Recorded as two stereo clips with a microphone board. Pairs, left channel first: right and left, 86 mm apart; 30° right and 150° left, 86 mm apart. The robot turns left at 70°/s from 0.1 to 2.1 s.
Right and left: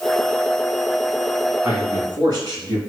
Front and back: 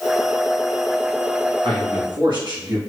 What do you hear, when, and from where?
1.6 s a man speaking: 155° left, 2.5 m; by 2.8 s 120° left, 2.5 m